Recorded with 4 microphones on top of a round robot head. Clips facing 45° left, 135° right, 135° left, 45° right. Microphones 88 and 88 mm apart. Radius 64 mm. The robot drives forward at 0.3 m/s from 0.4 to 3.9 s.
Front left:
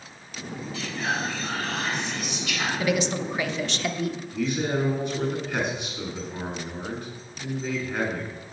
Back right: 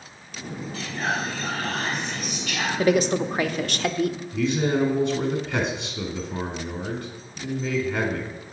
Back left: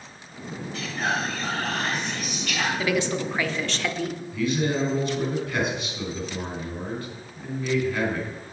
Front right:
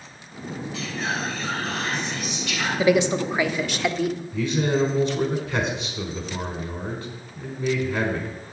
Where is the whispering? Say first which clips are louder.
Back right 1 dB, back left 2 dB; 175° left, 3.5 m; by 2.7 s straight behind, 4 m.